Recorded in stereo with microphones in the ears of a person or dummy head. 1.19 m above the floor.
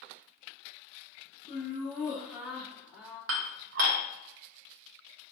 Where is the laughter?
20° right (ahead or behind), 1.5 m.